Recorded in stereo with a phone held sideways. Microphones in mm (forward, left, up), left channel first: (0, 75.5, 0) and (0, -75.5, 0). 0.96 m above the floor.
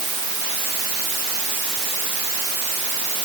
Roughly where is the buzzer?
No buzzer in this recording.